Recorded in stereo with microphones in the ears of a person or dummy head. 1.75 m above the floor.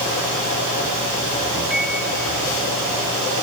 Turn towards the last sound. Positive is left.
turn(degrees=-5)  # may be behind; listen again after turning